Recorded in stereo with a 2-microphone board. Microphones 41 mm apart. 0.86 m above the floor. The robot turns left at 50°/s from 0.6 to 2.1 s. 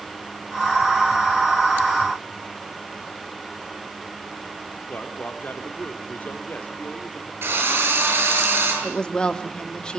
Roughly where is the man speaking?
Left.